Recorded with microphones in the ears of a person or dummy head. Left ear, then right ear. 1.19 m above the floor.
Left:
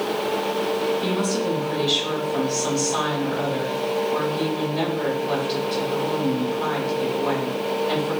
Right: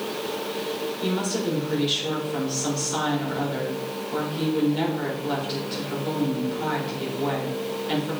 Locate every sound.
1.0 s a woman speaking: 10° right (ahead or behind), 4 m